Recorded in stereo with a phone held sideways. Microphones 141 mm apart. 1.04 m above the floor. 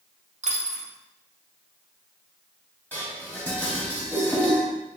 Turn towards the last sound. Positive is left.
turn(degrees=10)  # may be behind; listen again after turning